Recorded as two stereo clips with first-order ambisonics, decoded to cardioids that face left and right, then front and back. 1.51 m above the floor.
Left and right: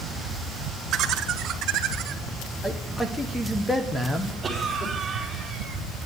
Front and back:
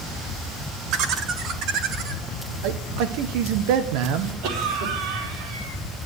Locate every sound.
0.9 s laughter: 145° right, 1.6 m; by 2.2 s 135° right, 2.5 m
2.6 s a man speaking: 170° left, 1.2 m
4.4 s a cough: 170° right, 4 m